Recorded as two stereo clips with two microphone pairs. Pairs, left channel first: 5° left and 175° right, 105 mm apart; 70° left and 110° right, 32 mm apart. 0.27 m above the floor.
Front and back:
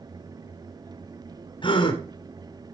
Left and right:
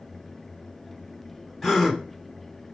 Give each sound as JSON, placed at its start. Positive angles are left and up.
{"t": 1.6, "sound": "a gasp", "azimuth_deg": -25, "distance_m": 1.9}